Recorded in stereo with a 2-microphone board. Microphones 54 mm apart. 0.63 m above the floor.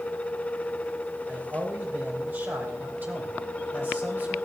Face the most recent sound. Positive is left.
turn(degrees=-35)  # may be behind; listen again after turning